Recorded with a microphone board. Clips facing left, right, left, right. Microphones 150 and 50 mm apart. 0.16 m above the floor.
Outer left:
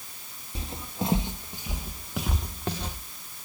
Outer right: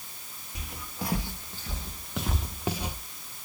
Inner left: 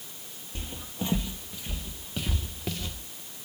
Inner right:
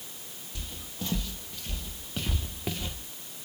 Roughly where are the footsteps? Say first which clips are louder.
Outer left 5 dB, inner left 5 dB; left.